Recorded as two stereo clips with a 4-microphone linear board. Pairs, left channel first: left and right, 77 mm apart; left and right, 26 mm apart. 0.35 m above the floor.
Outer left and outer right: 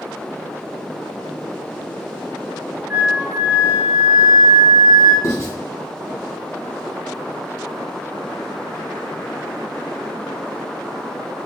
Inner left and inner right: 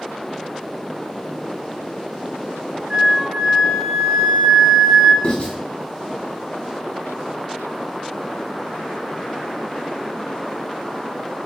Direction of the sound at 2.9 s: 15° right (ahead or behind).